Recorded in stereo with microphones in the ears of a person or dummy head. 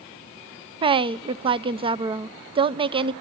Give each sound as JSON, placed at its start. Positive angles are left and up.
{"t": 0.8, "sound": "a woman speaking", "side_deg": -25, "distance_m": 0.6}